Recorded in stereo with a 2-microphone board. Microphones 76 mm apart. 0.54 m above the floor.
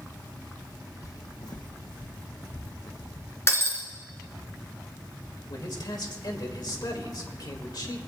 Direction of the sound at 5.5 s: 65° left (ahead or behind).